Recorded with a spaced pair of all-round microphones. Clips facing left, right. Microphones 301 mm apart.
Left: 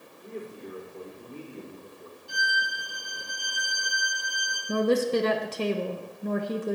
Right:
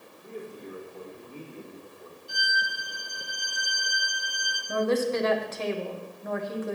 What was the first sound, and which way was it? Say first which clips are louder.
A man speaking: left 1 dB; 25° left (ahead or behind).